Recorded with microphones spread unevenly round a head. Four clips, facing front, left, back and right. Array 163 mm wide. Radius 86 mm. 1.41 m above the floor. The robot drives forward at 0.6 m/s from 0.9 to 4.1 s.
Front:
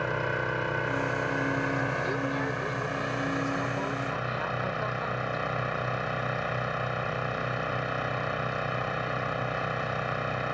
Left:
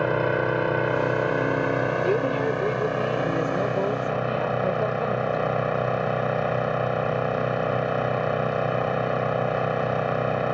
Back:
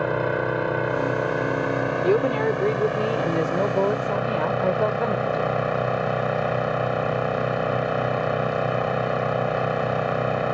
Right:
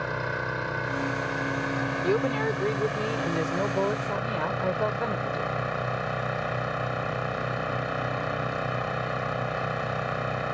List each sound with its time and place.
0.0 s an engine running: 130° left; by 10.5 s 140° left
2.0 s a woman speaking: 170° left; by 5.5 s 175° left